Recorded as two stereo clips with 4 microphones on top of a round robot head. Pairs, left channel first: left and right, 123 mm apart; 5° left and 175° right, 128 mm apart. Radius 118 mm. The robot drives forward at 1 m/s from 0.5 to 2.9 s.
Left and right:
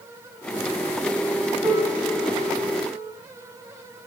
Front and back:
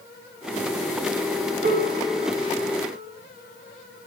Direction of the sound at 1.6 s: 165° right.